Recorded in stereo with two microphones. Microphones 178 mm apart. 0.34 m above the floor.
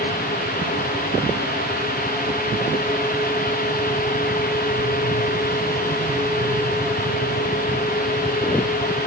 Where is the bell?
I don't hear a bell.